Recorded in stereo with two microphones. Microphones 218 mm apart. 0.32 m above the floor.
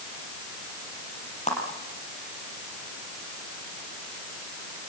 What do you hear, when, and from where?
1.5 s a clap: 30° left (ahead or behind), 6.5 m